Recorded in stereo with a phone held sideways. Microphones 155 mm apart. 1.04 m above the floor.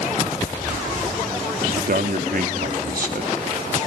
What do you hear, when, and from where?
1.8 s a man speaking: 70° right (ahead or behind), 2.5 m